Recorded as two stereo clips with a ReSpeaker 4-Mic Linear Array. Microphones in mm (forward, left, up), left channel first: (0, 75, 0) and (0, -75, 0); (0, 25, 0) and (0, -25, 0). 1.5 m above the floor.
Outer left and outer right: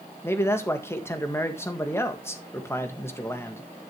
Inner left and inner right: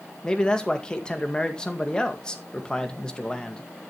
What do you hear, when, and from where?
0.2 s a man speaking: 15° left (ahead or behind), 1.8 m